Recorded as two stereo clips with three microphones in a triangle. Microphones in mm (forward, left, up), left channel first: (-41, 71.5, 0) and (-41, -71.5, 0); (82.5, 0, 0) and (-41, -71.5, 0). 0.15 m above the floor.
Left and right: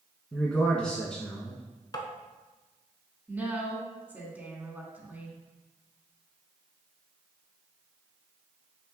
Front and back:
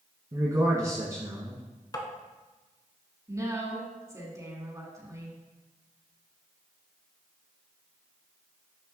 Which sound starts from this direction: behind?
A man speaking, at 0.3 s.